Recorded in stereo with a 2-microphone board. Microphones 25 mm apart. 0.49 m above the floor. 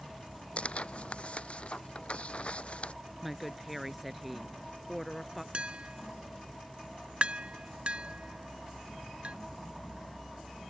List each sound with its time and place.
0.6 s tearing paper: 50° left (ahead or behind)
3.2 s a woman speaking: 5° right (ahead or behind)
5.5 s tapping: 45° right (ahead or behind)